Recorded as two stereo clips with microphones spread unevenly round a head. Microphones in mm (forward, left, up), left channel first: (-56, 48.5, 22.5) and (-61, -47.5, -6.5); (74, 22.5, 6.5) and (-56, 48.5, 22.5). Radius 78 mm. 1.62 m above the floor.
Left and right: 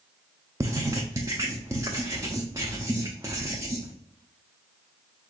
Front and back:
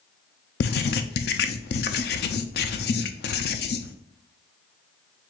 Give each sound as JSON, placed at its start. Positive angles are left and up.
{"t": 0.6, "sound": "writing", "azimuth_deg": -15, "distance_m": 0.5}